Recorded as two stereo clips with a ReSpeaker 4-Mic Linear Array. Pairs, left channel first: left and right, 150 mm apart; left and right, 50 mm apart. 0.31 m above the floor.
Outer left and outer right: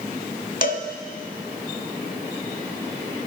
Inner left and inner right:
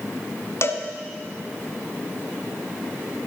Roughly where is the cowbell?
Left.